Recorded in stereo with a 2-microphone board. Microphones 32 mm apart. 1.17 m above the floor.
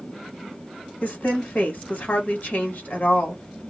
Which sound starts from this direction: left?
A woman speaking, at 1.0 s.